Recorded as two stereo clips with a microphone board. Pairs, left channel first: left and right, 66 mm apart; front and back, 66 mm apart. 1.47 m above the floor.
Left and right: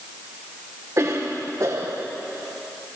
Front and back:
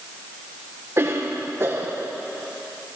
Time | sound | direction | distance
1.0 | a cough | 130° right | 1.6 m